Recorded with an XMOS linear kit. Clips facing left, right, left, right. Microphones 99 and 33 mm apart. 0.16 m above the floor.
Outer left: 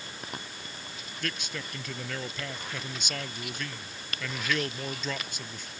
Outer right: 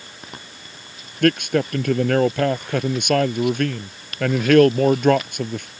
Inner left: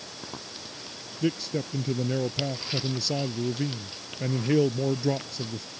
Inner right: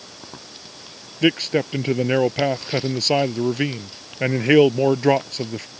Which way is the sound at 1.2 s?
60° right (ahead or behind).